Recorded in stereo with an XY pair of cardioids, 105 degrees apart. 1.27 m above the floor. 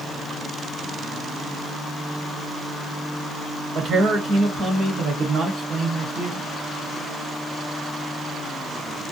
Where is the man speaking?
55° right, 1.1 m.